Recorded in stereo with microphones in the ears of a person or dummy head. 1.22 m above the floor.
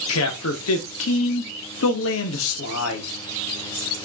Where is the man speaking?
75° left (ahead or behind), 0.7 m.